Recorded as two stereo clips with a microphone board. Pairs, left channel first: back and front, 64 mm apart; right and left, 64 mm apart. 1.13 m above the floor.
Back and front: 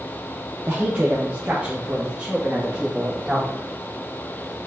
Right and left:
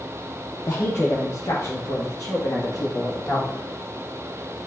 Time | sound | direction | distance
0.7 | a woman speaking | 50° right | 1.0 m